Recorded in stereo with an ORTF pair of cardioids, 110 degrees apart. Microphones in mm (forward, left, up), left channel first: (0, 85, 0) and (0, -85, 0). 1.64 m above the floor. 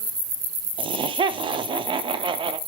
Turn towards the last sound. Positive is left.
turn(degrees=-30)